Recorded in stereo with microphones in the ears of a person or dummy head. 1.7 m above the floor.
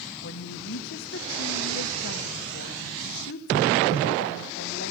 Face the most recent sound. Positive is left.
turn(degrees=60)  # may be behind; listen again after turning